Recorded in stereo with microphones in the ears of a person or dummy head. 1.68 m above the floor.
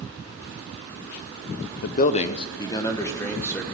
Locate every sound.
1.8 s a man speaking: 60° left (ahead or behind), 0.6 m; by 3.6 s 15° left (ahead or behind), 2 m